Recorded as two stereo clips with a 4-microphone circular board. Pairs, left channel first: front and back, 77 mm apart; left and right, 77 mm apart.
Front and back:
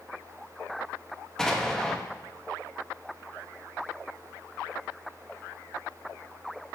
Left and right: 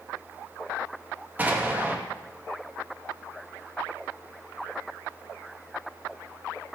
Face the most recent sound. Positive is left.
turn(degrees=-75)